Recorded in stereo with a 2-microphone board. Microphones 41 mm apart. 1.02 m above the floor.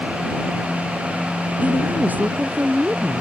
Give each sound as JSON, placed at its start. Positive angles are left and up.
{"t": 1.6, "sound": "a woman speaking", "side_deg": -45}